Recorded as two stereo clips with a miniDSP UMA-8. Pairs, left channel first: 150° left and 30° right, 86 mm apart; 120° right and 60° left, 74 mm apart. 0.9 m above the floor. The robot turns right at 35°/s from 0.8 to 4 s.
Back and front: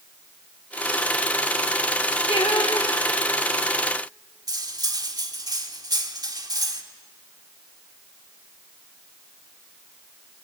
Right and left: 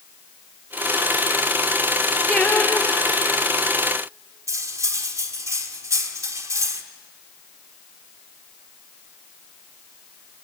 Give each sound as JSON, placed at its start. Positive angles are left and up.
{"t": 2.3, "sound": "singing", "azimuth_deg": 160, "distance_m": 2.0}
{"t": 4.5, "sound": "cutlery clinking", "azimuth_deg": 10, "distance_m": 1.5}